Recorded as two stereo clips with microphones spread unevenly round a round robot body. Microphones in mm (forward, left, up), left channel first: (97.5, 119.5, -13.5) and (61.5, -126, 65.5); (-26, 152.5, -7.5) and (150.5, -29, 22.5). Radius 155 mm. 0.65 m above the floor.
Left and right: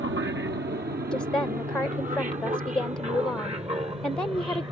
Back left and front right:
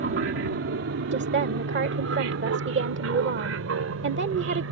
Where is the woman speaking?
Straight ahead.